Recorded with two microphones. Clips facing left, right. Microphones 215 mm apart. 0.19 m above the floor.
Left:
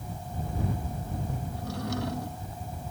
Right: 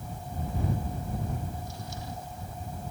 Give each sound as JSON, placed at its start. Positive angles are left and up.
{"t": 1.5, "sound": "a drawer", "side_deg": 80}